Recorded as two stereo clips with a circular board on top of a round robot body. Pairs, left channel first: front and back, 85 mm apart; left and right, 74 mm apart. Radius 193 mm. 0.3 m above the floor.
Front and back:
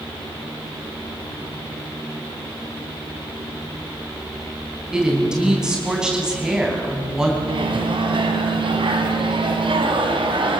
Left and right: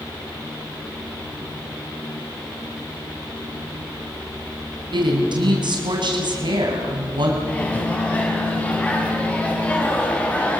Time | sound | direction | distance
4.9 | a woman speaking | 100° right | 3.5 m
7.4 | a microwave | 160° left | 3 m